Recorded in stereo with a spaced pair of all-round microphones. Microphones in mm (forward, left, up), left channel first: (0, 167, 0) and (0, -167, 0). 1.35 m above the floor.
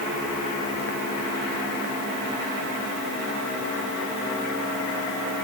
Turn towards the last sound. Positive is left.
No sound to turn to.